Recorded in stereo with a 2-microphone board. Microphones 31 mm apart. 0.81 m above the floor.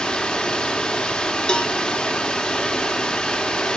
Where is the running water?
30° left (ahead or behind), 1.7 m.